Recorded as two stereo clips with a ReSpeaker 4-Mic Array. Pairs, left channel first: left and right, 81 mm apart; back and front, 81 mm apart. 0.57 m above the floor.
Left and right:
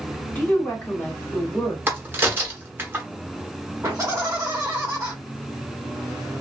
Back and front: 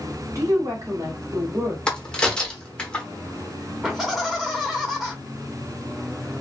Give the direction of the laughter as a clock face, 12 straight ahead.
2 o'clock.